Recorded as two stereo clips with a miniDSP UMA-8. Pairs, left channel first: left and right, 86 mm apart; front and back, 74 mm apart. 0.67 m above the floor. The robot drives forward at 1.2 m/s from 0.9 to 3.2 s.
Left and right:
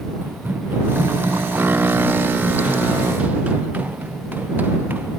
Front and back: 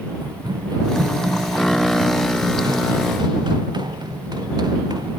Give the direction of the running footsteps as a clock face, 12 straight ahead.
5 o'clock.